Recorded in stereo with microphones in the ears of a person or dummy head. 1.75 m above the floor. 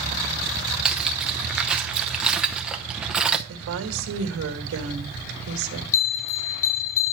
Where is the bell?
35° left (ahead or behind), 3.5 m.